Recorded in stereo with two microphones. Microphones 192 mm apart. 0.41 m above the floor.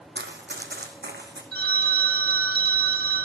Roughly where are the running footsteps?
Right.